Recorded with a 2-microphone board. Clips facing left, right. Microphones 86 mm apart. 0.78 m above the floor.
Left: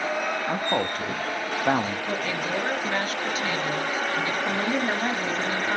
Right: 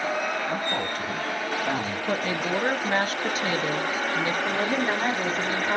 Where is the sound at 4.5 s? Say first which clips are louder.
Even; 45° right (ahead or behind), 2.0 m.